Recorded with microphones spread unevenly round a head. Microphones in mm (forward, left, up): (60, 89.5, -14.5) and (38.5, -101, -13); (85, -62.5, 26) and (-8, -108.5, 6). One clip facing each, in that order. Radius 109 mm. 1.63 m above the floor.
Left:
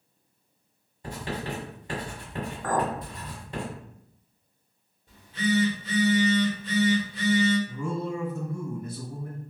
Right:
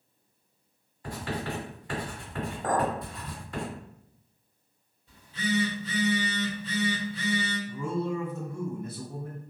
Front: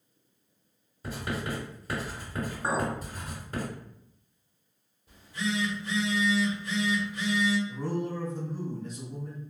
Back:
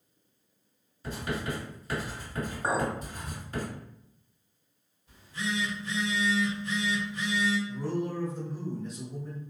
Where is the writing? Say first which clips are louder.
Even, even; 30° left, 1.9 m.